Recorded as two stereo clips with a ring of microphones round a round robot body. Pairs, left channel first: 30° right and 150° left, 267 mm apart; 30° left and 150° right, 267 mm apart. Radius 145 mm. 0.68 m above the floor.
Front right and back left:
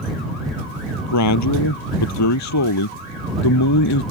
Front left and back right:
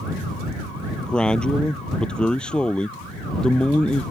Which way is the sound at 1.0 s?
60° right.